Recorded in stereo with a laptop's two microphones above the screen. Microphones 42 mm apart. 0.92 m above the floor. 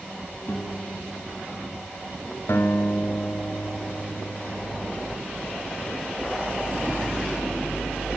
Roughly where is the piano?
Left.